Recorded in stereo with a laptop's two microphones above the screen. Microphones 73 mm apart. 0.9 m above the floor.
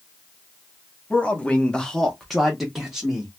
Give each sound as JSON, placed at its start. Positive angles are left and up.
{"t": 1.1, "sound": "a man speaking", "side_deg": 15, "distance_m": 0.7}